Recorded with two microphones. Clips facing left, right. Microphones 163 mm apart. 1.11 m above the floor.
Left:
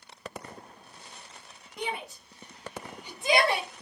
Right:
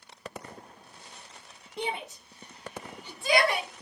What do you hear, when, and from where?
1.8 s a shout: 30° right (ahead or behind), 1.0 m; by 3.7 s 35° left (ahead or behind), 1.0 m